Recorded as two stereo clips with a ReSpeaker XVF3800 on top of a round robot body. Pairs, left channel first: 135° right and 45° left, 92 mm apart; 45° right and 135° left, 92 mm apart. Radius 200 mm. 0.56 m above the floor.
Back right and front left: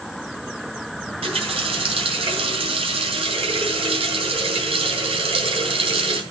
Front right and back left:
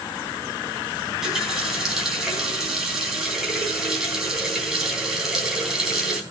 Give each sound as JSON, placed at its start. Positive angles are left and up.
{"t": 1.1, "sound": "a running tap", "azimuth_deg": 50, "distance_m": 3.5}